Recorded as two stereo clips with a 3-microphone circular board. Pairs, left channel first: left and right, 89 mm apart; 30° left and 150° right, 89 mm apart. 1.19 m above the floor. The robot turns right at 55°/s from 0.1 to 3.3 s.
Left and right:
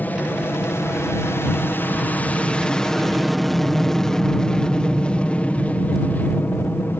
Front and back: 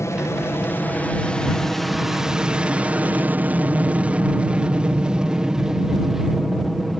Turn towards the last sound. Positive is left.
turn(degrees=120)